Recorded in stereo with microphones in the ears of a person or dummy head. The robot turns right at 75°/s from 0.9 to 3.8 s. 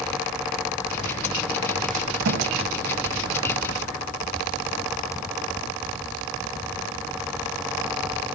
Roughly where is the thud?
Right.